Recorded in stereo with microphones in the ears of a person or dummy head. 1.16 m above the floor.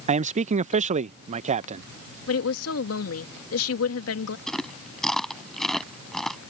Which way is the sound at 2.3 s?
70° left (ahead or behind).